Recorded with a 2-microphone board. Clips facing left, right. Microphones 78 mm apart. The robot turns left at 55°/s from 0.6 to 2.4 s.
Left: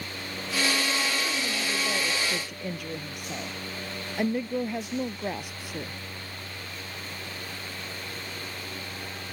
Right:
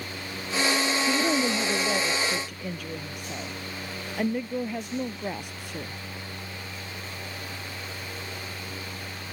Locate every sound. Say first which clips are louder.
1.1 s a woman speaking: right 6 dB; 110° right; by 6.0 s 175° left